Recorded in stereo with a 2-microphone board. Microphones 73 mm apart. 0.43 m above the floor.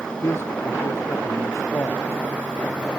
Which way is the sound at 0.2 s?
40° left (ahead or behind).